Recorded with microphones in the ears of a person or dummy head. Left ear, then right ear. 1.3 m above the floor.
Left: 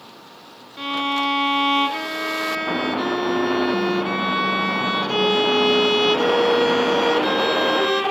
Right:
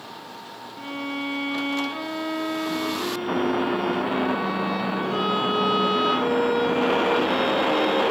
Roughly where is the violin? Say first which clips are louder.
Left 9 dB; left.